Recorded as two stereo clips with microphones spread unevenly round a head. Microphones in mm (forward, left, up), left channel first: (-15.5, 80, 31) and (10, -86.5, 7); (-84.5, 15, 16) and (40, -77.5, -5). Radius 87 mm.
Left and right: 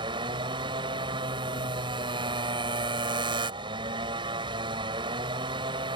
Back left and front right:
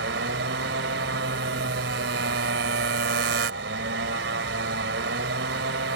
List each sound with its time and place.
0.0 s a motorcycle: 15° right